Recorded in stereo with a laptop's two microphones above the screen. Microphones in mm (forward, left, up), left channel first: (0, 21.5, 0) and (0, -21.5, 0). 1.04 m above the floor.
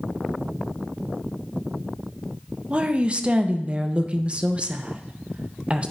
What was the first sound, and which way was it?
A woman speaking, 25° right (ahead or behind).